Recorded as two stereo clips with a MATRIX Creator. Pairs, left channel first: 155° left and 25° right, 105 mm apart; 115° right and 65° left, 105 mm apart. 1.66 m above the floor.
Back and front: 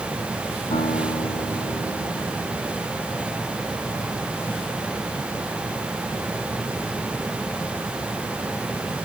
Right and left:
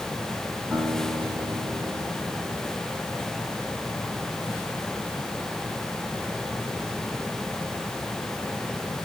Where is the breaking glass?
No breaking glass in this recording.